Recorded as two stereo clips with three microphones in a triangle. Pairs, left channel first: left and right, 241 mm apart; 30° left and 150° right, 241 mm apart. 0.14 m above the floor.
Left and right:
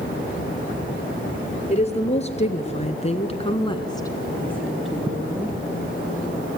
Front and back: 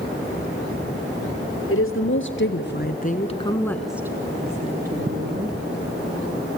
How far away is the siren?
No siren in this recording.